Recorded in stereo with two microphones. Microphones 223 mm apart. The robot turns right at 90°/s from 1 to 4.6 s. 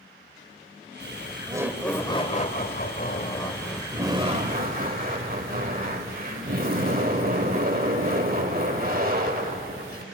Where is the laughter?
70° right, 2.0 m; by 10.0 s 105° right, 2.0 m.